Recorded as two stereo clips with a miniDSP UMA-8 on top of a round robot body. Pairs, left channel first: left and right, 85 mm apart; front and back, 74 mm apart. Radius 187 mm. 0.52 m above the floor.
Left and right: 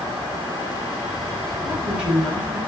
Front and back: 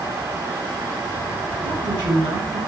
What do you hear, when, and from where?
1.6 s a woman speaking: 170° right, 9.5 m